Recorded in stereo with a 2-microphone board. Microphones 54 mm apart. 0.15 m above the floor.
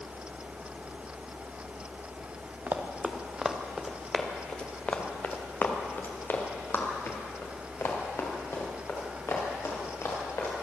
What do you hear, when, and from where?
2.7 s running footsteps: 35° right (ahead or behind), 1.7 m; by 10.6 s 55° left (ahead or behind), 6.5 m